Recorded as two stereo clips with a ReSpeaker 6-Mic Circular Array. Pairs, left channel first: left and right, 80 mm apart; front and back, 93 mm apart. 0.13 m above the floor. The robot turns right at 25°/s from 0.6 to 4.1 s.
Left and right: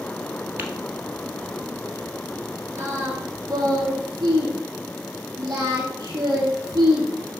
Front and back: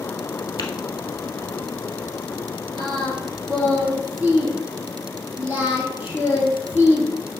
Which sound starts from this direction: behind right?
Singing, at 2.8 s.